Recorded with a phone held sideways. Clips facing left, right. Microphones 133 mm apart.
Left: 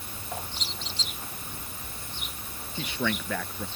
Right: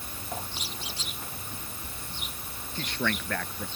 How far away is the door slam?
I don't hear a door slam.